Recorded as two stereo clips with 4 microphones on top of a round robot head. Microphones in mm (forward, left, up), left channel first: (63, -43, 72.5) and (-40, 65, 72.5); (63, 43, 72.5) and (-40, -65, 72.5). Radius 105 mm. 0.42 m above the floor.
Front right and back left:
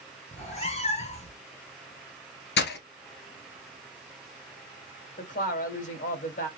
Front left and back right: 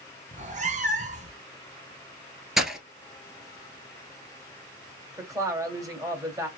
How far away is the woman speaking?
About 2.5 m.